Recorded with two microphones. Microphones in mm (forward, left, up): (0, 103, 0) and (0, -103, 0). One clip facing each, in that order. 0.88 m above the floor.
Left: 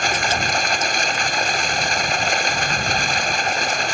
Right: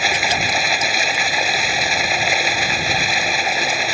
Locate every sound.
0.0 s running water: 5° right (ahead or behind)